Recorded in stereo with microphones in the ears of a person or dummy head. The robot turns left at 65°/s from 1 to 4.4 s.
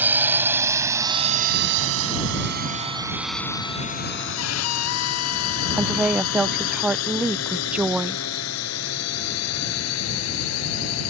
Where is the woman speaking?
5° right (ahead or behind).